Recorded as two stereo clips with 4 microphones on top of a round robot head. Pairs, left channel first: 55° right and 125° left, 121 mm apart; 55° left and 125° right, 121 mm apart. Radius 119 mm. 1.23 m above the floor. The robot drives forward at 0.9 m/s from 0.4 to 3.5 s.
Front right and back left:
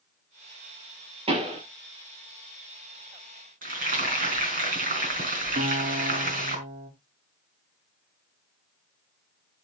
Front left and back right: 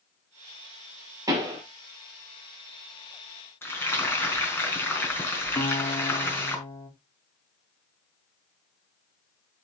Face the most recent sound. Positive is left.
turn(degrees=120)